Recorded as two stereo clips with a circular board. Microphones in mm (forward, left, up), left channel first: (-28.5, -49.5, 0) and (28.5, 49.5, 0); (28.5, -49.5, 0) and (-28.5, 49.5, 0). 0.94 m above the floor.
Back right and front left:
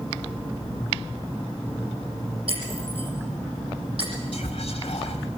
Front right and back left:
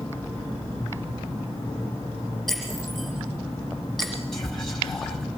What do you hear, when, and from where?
2.5 s breaking glass: 30° left, 8 m
4.3 s whispering: 150° right, 1.9 m